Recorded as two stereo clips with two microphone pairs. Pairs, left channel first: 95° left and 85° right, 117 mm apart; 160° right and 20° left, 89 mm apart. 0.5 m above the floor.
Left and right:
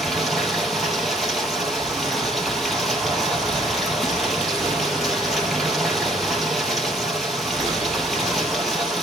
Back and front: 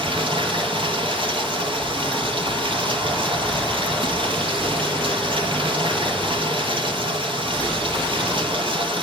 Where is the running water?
5° left, 3.5 m.